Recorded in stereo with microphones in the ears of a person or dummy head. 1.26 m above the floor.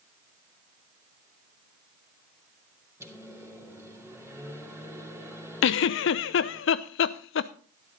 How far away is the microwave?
About 2.5 m.